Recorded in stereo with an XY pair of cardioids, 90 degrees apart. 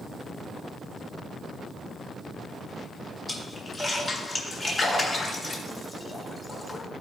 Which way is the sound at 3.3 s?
20° left.